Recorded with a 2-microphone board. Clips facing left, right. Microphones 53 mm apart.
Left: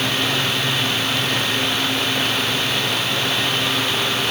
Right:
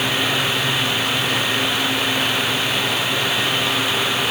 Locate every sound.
Only background noise.